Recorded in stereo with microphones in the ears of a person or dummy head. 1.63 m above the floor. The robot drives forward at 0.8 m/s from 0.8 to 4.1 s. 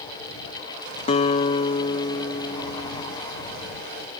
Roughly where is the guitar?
Left.